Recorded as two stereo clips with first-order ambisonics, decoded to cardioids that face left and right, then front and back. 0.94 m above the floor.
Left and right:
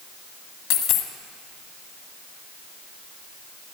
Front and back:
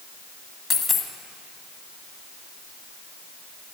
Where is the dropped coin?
80° left, 1.5 m.